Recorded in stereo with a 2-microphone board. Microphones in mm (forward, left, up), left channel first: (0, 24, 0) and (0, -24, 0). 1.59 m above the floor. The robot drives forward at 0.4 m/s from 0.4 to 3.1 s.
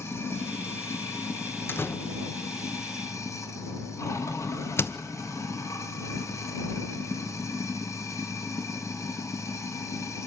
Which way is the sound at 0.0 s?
60° left (ahead or behind).